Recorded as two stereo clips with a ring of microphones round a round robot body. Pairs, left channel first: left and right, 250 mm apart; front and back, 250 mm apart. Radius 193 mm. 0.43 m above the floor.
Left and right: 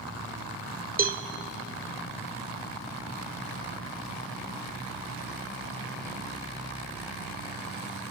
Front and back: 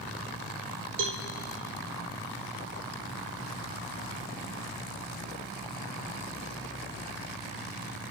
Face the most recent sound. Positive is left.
turn(degrees=-145)